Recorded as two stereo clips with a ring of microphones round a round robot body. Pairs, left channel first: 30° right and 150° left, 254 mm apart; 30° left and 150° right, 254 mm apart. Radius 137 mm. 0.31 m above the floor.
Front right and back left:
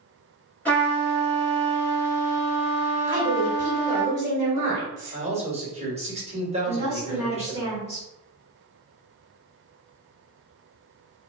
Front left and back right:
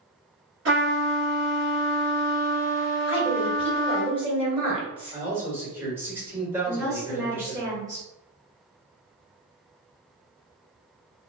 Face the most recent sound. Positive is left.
turn(degrees=-80)